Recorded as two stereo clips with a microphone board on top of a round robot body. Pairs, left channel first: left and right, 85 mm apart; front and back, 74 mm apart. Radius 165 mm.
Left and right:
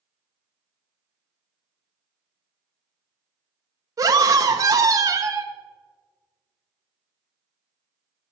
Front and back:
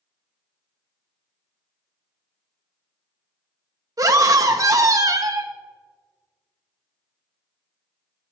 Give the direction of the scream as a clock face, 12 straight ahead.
5 o'clock.